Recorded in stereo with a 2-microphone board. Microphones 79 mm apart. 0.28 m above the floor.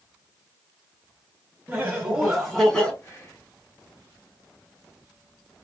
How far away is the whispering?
About 1.2 m.